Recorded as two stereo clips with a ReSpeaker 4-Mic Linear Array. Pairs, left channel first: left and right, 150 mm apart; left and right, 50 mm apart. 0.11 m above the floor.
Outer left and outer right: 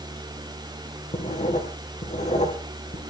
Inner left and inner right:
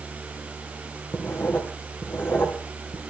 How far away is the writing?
About 3.5 m.